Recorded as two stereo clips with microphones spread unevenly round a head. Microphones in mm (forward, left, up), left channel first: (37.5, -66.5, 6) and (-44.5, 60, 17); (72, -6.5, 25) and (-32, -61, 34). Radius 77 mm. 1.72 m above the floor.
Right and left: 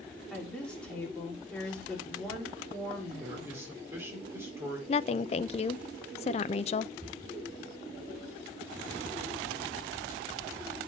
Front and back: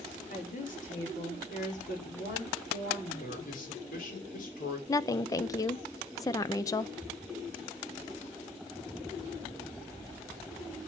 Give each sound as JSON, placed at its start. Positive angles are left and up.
{"t": 0.3, "sound": "a woman speaking", "azimuth_deg": 25, "distance_m": 5.0}
{"t": 3.2, "sound": "a man speaking", "azimuth_deg": 50, "distance_m": 5.0}
{"t": 4.9, "sound": "a woman speaking", "azimuth_deg": -25, "distance_m": 0.5}